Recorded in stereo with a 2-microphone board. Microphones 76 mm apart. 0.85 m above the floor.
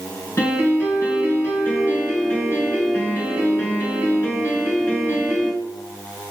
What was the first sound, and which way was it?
A piano, 35° left (ahead or behind).